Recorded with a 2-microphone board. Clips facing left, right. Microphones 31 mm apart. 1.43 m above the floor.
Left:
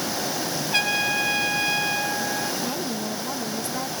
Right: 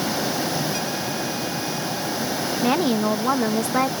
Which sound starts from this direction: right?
A woman speaking, at 2.6 s.